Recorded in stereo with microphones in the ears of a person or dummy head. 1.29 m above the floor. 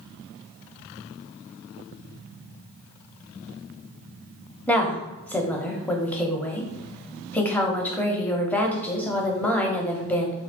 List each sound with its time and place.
4.7 s a woman speaking: 15° left (ahead or behind), 0.5 m